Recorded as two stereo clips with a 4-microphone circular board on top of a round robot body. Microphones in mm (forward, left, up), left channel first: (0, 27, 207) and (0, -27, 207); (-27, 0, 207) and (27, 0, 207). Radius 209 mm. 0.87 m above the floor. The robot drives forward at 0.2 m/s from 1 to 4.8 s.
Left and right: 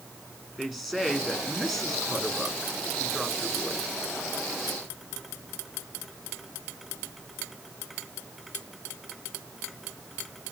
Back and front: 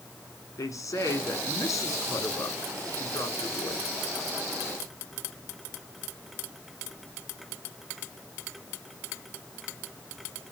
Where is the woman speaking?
175° right, 3.5 m.